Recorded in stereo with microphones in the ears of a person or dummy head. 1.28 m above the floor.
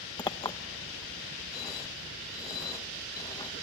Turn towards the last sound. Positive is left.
turn(degrees=20)  # may be behind; listen again after turning